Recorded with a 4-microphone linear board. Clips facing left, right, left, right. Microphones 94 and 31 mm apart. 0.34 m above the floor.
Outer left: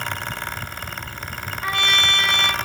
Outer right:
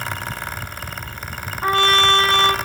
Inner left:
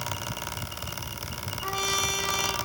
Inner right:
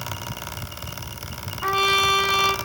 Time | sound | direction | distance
1.6 | a trumpet | 40° right (ahead or behind) | 1.8 m